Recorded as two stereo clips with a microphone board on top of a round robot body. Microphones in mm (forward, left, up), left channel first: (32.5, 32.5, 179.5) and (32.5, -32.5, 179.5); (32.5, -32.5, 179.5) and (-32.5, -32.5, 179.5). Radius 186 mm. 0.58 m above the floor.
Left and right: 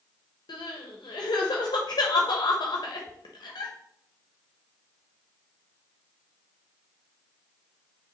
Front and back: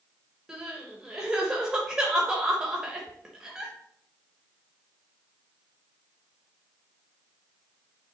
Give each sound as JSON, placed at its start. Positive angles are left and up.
{"t": 0.5, "sound": "crying", "azimuth_deg": 95, "distance_m": 1.0}